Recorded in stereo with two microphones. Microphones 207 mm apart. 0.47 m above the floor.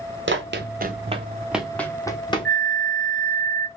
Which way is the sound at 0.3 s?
65° right (ahead or behind).